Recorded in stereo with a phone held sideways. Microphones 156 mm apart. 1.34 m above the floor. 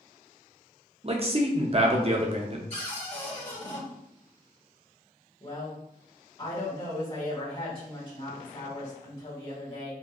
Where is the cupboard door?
50° left (ahead or behind), 1.6 m.